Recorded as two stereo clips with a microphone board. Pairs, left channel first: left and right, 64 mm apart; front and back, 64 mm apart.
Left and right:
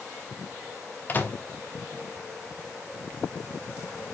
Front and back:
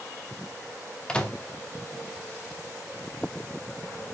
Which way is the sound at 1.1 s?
65° left.